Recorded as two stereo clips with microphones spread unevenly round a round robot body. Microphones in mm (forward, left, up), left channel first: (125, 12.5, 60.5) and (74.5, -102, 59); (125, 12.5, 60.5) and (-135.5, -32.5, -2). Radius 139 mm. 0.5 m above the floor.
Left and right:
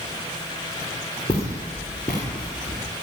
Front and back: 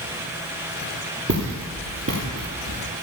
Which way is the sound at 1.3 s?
140° left.